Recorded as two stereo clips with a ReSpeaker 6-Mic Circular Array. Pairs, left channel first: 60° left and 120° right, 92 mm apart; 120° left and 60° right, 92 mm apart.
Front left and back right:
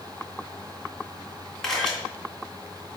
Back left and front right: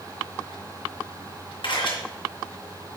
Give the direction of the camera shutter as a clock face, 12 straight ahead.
7 o'clock.